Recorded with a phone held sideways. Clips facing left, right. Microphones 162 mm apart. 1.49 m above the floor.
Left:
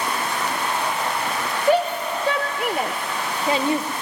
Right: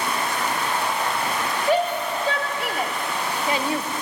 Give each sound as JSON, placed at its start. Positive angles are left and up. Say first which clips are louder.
{"t": 1.7, "sound": "a shout", "louder": "left 3 dB", "side_deg": 65, "distance_m": 2.0}